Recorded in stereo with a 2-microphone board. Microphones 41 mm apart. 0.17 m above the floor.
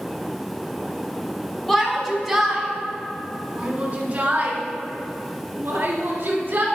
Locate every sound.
1.7 s a shout: 10° left (ahead or behind), 1.7 m; by 6.6 s 55° right (ahead or behind), 3 m